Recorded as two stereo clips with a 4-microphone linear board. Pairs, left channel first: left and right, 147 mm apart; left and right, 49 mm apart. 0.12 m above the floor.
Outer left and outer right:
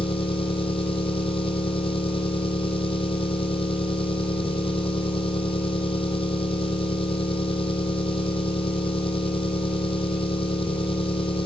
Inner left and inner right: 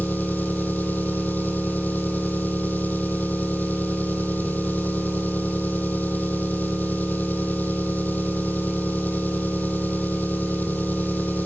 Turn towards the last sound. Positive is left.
turn(degrees=40)  # may be behind; listen again after turning